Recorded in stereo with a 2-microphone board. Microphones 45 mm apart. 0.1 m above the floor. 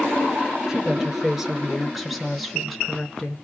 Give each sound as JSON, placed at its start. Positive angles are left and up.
{"t": 0.7, "sound": "a woman speaking", "side_deg": -10, "distance_m": 1.5}